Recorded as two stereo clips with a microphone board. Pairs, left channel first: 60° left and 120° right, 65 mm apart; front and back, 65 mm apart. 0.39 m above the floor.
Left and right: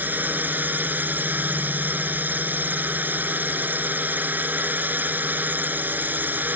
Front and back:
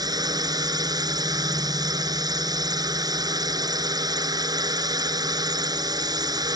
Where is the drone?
175° left.